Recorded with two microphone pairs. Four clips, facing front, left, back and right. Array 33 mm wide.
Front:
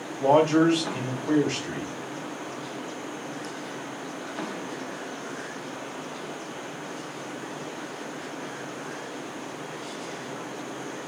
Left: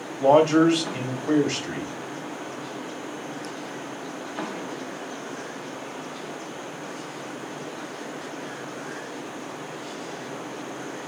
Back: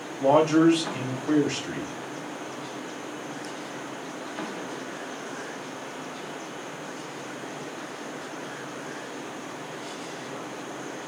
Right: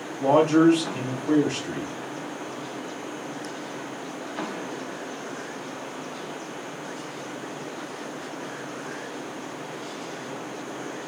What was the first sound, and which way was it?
A man speaking, 70° left.